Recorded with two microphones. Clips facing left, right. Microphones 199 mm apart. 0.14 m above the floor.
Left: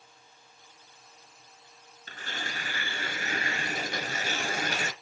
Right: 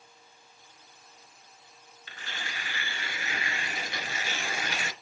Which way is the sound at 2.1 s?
45° left (ahead or behind).